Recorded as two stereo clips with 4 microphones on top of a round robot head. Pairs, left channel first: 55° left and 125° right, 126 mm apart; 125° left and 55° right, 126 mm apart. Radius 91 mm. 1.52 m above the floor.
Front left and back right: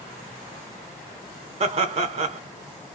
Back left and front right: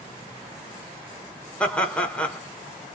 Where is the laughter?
155° right, 0.6 m.